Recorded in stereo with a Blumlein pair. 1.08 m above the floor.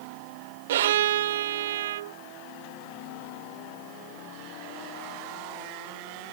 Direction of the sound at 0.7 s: 55° right.